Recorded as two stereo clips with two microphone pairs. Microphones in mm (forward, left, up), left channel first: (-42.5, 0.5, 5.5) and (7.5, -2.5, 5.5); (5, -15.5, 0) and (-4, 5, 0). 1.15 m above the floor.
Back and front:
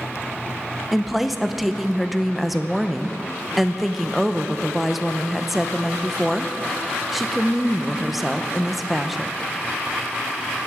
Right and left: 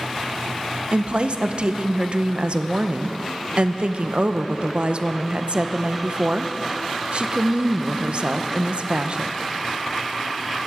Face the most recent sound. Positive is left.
turn(degrees=85)